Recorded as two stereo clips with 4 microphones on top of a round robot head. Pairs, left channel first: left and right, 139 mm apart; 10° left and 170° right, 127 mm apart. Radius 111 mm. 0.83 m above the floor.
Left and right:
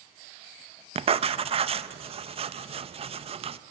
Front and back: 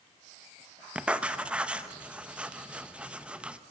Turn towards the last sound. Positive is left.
turn(degrees=-95)